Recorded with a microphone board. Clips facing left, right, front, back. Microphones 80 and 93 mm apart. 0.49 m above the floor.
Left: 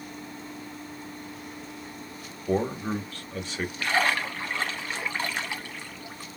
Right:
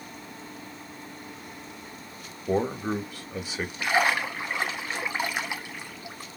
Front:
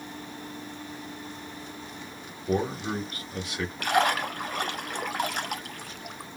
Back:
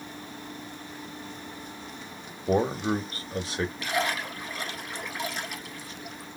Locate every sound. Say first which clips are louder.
2.5 s a man speaking: right 1 dB, back 3 dB; 165° right, 0.7 m
3.8 s a splash: right 2 dB, front 9 dB; 15° right, 0.6 m